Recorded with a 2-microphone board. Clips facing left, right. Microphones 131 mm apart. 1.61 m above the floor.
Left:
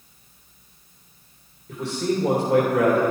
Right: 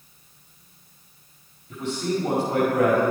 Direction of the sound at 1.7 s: 75° left (ahead or behind).